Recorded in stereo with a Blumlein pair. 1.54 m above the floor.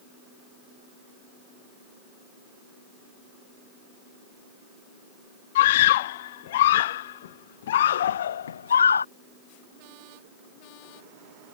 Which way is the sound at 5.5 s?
55° left.